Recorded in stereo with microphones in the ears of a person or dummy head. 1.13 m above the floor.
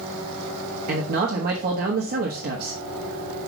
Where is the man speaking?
55° right (ahead or behind), 1.3 m.